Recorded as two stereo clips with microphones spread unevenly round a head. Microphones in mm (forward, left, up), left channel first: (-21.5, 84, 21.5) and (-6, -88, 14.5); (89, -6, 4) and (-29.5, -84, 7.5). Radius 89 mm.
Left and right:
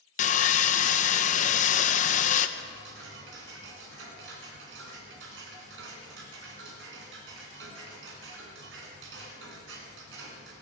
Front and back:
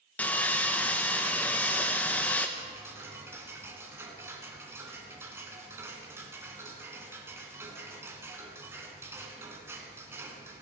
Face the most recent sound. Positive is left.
turn(degrees=-75)